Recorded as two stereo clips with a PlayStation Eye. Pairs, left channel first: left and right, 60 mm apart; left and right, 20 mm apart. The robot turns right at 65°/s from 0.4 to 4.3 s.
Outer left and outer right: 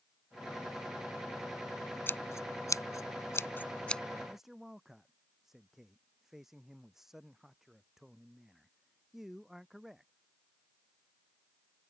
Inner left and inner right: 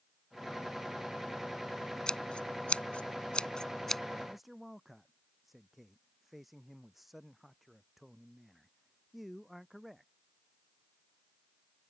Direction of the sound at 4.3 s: Centre (ahead or behind).